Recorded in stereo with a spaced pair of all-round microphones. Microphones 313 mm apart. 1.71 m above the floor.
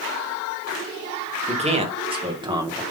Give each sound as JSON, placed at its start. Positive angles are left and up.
{"t": 1.5, "sound": "a man speaking", "side_deg": -20, "distance_m": 3.0}